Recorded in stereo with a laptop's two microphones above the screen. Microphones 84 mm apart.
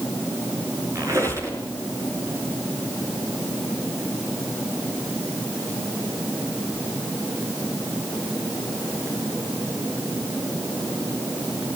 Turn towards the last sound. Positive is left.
turn(degrees=-35)  # may be behind; listen again after turning